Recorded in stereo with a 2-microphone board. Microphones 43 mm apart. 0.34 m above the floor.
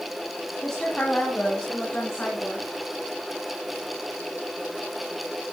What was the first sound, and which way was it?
A woman speaking, 20° left (ahead or behind).